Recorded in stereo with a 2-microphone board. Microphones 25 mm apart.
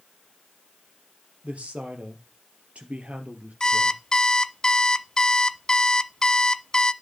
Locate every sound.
1.4 s a woman speaking: 55° right (ahead or behind), 3 m
3.6 s an alarm clock: 30° left (ahead or behind), 0.5 m